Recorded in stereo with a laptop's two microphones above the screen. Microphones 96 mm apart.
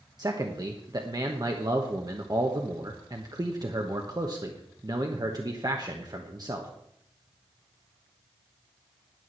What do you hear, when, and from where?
0.2 s a man speaking: 45° right (ahead or behind), 1.1 m